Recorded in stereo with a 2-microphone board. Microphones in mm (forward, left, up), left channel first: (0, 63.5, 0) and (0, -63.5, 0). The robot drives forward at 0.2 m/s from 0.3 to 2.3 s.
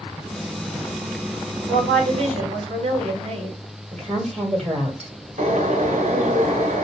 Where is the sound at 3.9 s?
60° right (ahead or behind), 1.7 m.